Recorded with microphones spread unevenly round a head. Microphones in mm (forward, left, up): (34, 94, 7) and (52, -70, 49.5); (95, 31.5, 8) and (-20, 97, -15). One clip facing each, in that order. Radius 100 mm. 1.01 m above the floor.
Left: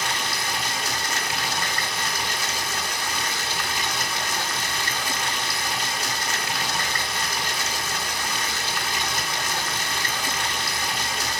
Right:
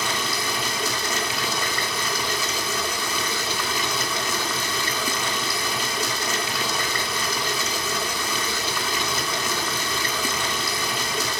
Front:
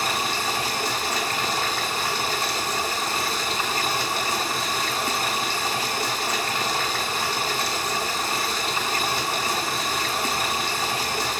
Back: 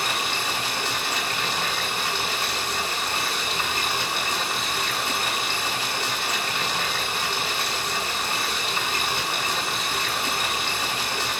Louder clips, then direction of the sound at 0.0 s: Right 2 dB, front 2 dB; 95° right.